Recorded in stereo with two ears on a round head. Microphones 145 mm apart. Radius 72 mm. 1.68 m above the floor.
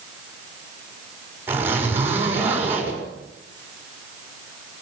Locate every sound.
1.5 s a zipper: 15° right (ahead or behind), 6.5 m